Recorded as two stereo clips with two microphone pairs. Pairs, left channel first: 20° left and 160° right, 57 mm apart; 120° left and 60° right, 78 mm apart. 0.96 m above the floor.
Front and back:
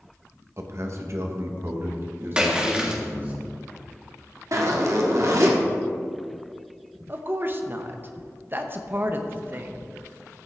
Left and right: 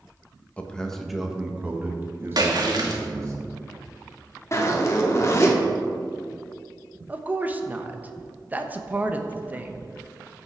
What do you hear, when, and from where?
0.6 s a man speaking: 170° right, 1.2 m; by 3.4 s 105° right, 2.5 m
2.4 s a splash: 85° right, 1.6 m
4.5 s a zipper: 175° left, 1.4 m
7.1 s a woman speaking: 120° right, 0.9 m